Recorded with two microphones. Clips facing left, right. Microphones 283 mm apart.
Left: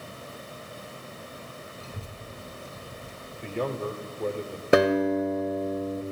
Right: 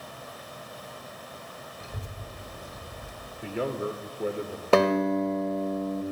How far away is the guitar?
About 0.9 m.